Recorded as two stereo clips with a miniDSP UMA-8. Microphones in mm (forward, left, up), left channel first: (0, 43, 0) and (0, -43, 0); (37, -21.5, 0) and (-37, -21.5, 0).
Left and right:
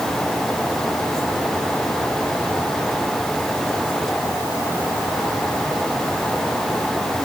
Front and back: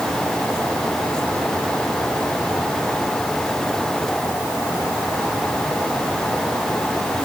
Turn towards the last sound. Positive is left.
No sound to turn to.